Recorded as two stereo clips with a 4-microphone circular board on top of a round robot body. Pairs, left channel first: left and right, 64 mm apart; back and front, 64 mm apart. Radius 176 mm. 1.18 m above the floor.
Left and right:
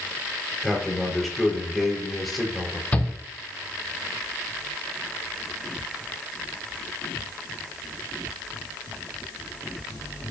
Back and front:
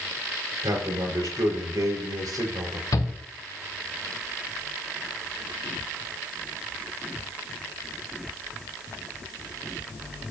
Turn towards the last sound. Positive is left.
turn(degrees=160)